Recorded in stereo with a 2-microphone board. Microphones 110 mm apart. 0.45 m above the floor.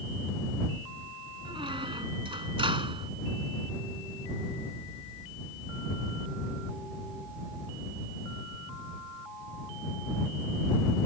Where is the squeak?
55° right (ahead or behind).